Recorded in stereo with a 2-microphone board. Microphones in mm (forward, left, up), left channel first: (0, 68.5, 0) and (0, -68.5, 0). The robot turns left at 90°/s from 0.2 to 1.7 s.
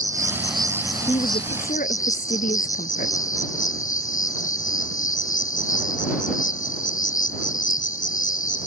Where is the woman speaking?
145° left; by 3.2 s 90° left.